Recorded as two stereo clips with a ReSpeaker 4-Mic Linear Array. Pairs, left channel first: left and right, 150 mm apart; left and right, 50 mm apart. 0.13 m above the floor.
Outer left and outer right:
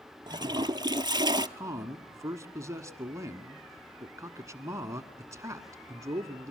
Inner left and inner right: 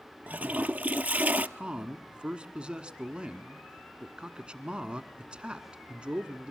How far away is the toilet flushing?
About 0.7 m.